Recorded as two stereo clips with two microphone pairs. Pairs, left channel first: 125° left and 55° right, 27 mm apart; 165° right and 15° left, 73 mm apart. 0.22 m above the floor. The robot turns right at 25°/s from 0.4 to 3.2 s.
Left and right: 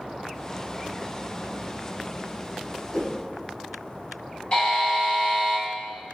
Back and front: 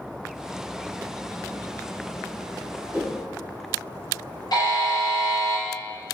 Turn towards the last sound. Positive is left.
turn(degrees=170)